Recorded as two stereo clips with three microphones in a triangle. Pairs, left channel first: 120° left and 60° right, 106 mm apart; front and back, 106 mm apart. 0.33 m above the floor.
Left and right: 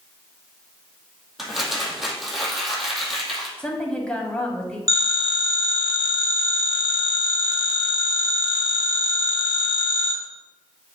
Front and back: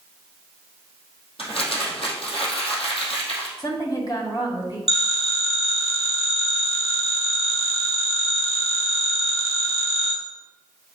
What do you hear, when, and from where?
1.4 s crumpling: 30° left, 2.5 m
3.6 s a woman speaking: 40° left, 2.0 m
4.9 s a phone ringing: 5° right, 2.5 m